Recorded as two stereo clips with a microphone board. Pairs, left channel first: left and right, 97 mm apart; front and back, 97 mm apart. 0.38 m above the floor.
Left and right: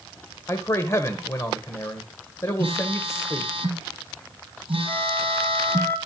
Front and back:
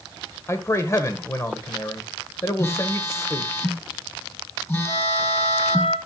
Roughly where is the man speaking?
Ahead left.